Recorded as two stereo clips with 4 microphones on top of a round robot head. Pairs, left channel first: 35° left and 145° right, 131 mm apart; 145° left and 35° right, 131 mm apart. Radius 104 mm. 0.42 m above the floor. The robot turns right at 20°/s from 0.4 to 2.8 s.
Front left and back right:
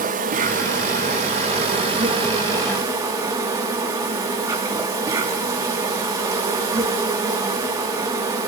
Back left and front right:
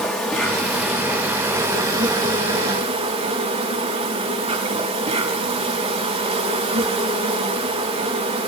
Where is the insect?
130° right, 7 m; by 8.5 s 80° right, 7 m.